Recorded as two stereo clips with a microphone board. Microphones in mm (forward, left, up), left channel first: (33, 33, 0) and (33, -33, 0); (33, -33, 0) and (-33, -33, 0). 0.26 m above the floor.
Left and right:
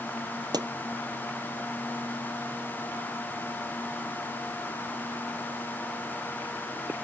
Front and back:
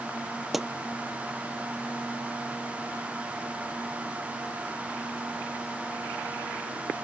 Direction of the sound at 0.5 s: 95° right.